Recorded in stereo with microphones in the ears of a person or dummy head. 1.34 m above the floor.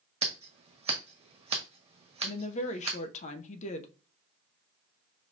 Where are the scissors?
30° right (ahead or behind), 1.1 m.